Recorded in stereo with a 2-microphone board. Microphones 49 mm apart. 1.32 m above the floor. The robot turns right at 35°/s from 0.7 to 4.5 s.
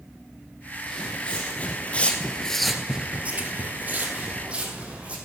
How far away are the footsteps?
About 3 m.